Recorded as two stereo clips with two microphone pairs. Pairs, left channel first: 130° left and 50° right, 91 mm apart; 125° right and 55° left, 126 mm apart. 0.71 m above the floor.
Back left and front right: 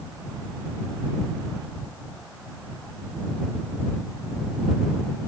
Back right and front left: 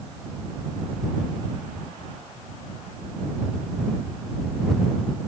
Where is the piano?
No piano in this recording.